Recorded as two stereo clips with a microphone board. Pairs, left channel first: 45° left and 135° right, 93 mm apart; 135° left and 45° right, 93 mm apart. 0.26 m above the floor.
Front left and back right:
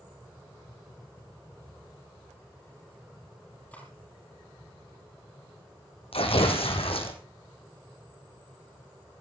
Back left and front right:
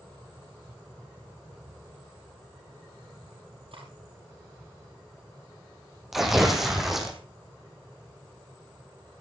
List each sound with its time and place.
3.7 s cutlery clinking: 30° right, 4 m
6.1 s tearing paper: 40° left, 2.5 m